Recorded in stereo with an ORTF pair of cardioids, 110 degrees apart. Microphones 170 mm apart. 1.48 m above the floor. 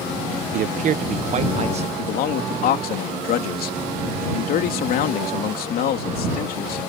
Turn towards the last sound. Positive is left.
turn(degrees=65)